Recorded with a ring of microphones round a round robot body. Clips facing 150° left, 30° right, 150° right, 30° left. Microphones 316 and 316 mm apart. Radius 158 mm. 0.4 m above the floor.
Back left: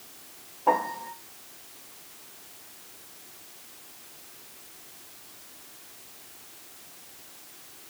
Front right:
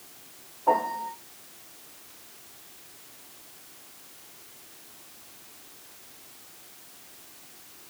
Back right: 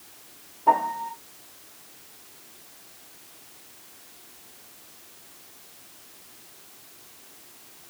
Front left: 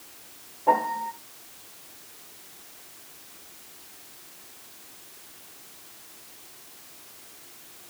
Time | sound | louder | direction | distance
0.7 | a piano | even, front left 1 dB | 170° left | 1.9 m